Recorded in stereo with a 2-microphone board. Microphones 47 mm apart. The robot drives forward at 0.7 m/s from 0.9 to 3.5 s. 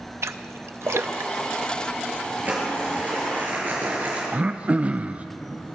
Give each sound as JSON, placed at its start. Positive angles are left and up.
{"t": 0.2, "sound": "a splash", "side_deg": -70, "distance_m": 0.5}
{"t": 2.5, "sound": "crumpling", "side_deg": -40, "distance_m": 5.5}
{"t": 4.3, "sound": "throat clearing", "side_deg": -30, "distance_m": 0.5}